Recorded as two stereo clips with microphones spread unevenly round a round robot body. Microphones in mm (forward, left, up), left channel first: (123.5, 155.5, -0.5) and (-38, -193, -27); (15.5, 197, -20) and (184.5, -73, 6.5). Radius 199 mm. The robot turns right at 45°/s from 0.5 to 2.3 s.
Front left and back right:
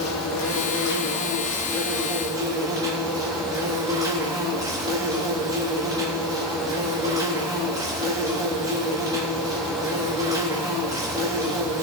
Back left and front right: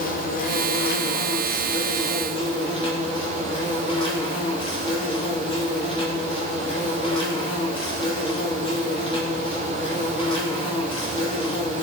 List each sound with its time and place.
0.0 s an insect: 95° left, 0.9 m; by 11.8 s 175° left, 0.9 m